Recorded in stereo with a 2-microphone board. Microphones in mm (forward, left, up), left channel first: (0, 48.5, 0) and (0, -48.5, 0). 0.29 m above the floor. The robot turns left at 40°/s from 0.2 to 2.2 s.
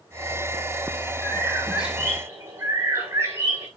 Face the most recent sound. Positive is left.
turn(degrees=-25)